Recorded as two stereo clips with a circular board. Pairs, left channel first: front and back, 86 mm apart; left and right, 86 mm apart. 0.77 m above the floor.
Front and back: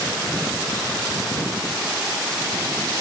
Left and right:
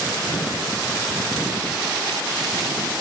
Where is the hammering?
No hammering in this recording.